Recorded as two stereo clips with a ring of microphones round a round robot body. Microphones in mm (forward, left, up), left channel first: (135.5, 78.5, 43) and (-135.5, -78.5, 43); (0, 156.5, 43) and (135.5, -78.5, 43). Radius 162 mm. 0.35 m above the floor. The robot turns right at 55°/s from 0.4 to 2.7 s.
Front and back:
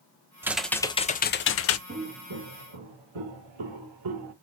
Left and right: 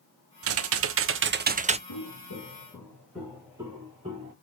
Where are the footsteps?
145° left, 2 m; by 4.3 s 130° right, 2 m.